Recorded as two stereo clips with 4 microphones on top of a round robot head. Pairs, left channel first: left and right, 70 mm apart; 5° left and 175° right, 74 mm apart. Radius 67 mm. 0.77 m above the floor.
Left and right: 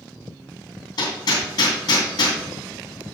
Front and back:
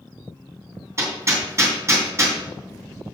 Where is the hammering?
130° left, 4 m.